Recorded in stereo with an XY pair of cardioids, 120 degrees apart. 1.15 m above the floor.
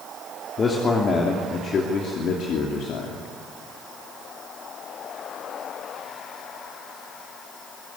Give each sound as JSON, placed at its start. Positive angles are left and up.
{"t": 0.6, "sound": "a man speaking", "azimuth_deg": 35, "distance_m": 3.0}